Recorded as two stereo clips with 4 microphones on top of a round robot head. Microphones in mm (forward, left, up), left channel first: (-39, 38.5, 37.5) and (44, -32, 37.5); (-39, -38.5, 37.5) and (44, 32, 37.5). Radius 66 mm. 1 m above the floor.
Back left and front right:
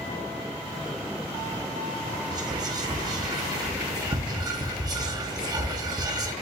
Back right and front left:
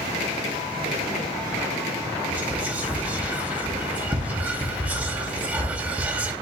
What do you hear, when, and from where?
2.3 s whispering: 25° right, 0.8 m